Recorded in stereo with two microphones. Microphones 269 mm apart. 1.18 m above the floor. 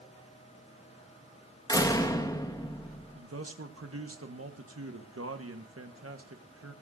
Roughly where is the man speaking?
Right.